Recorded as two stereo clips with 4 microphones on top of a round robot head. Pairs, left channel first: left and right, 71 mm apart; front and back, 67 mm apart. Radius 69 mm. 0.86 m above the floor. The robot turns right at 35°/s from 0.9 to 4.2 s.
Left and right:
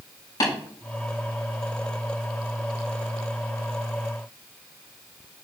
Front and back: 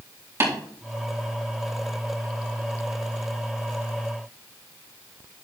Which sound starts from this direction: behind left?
Tapping, at 0.4 s.